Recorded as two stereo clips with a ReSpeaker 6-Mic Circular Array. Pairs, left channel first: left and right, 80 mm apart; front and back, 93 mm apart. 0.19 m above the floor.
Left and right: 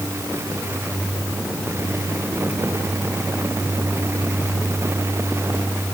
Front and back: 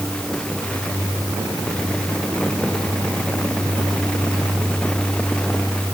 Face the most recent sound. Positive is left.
No sound to turn to.